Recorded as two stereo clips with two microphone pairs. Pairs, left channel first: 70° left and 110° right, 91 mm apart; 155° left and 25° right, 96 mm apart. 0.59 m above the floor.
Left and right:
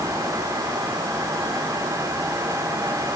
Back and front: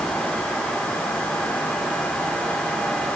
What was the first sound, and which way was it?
Only background noise.